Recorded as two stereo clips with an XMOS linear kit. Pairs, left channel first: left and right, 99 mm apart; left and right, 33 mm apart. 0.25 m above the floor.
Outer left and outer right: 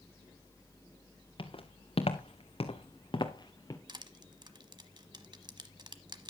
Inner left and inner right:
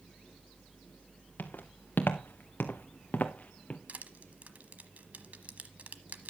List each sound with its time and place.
1.4 s footsteps: 60° left (ahead or behind), 1.6 m; by 3.8 s 35° left (ahead or behind), 1.7 m
3.9 s crushing: 50° right (ahead or behind), 1.0 m